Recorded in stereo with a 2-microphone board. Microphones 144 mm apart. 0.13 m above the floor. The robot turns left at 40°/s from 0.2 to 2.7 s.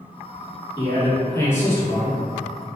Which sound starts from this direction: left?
A man speaking, at 0.8 s.